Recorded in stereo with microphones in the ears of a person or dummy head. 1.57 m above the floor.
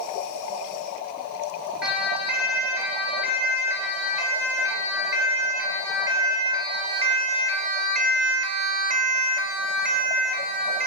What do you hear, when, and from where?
1.8 s a siren: centre (ahead or behind), 8.5 m; by 10.9 s 45° right (ahead or behind), 3 m